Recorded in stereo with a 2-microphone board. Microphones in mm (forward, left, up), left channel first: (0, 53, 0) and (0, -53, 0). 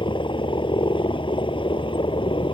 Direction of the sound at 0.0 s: 50° left (ahead or behind).